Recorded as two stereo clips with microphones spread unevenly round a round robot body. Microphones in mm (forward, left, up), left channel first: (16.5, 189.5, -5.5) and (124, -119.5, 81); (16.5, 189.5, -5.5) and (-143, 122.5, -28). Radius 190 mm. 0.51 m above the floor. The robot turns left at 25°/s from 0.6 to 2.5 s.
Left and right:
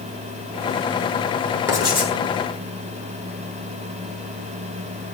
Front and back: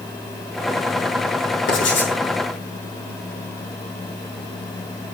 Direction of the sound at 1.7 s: 15° left.